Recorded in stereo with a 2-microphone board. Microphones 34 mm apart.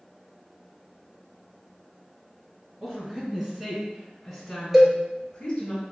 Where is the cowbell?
10° right (ahead or behind), 0.8 m.